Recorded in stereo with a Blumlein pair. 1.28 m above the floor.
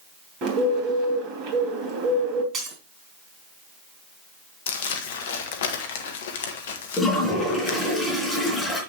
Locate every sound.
0.4 s a bird: 35° right, 3 m
2.5 s breaking glass: 25° right, 3 m
4.7 s crumpling: 55° left, 1.4 m
7.0 s a toilet flushing: 15° left, 3.5 m